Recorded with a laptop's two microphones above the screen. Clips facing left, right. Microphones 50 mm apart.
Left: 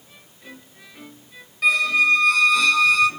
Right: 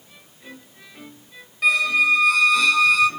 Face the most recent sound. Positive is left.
turn(degrees=0)  # may be behind; listen again after turning